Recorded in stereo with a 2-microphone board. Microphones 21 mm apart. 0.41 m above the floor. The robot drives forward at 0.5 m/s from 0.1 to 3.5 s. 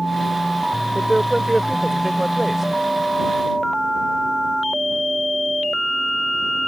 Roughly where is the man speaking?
Centre.